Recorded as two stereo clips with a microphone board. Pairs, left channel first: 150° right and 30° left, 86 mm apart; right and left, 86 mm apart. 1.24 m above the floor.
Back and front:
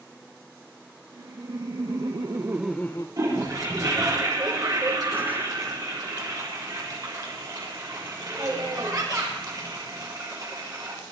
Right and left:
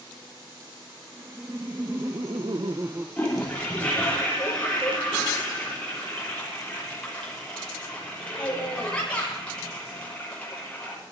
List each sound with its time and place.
1.1 s laughter: 35° left, 2 m; by 3.1 s 160° left, 0.8 m
3.2 s a toilet flushing: 15° right, 7.5 m